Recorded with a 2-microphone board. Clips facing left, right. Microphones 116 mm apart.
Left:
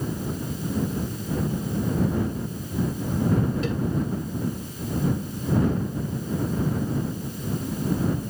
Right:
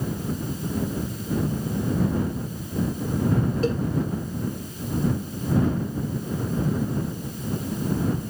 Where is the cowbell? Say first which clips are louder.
Right 4 dB; 35° right (ahead or behind).